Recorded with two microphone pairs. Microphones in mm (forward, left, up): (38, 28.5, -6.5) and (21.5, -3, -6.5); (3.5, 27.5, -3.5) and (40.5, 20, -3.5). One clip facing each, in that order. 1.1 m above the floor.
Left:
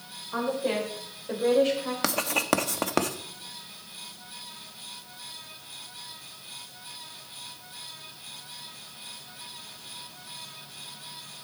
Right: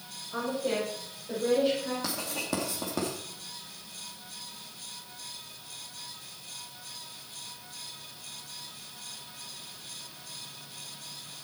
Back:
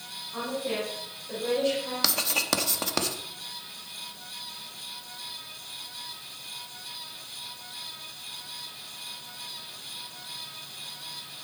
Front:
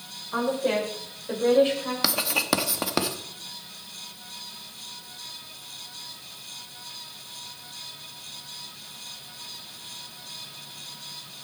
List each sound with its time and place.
0.3 s a woman speaking: 20° left, 5 m; by 1.9 s 40° left, 6 m
2.0 s writing: 65° left, 0.9 m